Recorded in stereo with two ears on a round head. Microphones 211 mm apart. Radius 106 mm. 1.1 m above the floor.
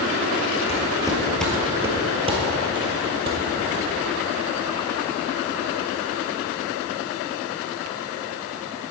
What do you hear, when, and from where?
0.7 s footsteps: 25° left (ahead or behind), 1.6 m; by 3.9 s 50° right (ahead or behind), 2.5 m